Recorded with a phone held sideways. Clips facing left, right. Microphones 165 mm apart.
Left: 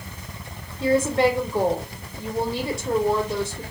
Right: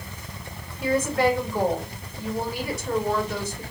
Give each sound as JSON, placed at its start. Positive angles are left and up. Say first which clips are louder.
{"t": 0.8, "sound": "a woman speaking", "louder": "left 3 dB", "side_deg": 25, "distance_m": 2.5}